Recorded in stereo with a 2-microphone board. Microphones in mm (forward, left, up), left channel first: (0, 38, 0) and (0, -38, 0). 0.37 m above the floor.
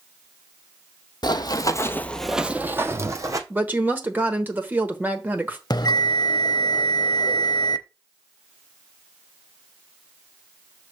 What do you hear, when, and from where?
1.2 s running footsteps: 65° left (ahead or behind), 0.8 m; by 3.4 s 45° right (ahead or behind), 1.1 m
3.5 s a woman speaking: 25° right (ahead or behind), 1.1 m
5.7 s a bell: 60° left (ahead or behind), 0.6 m